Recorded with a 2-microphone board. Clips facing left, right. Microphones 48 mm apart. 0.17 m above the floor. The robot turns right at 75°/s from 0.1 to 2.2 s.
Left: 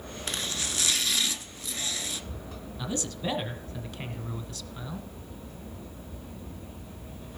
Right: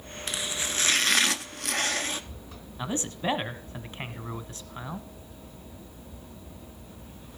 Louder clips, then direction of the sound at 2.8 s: Right 2 dB; 30° right (ahead or behind).